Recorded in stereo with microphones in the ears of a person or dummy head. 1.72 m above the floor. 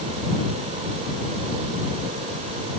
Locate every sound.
Only background noise.